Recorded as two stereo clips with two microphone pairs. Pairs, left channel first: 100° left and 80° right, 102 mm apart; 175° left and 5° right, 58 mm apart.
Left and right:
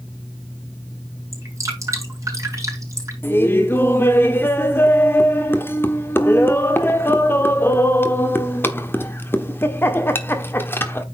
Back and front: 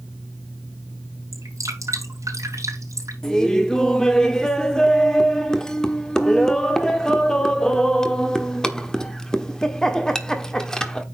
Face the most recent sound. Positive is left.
turn(degrees=115)